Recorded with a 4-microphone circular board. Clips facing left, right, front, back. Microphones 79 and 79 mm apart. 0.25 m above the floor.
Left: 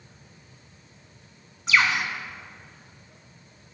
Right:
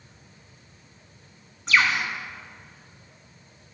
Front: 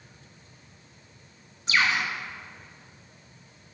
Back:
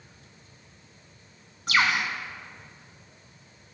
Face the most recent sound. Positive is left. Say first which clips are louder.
# even, back 1 dB
turn(degrees=175)